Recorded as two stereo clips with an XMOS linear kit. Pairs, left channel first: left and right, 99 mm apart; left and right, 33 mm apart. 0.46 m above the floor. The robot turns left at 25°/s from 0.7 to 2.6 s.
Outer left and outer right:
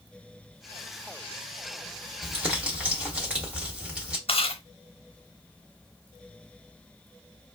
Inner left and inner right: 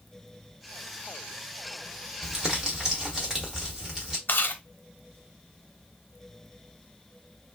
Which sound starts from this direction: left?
Chewing, at 4.3 s.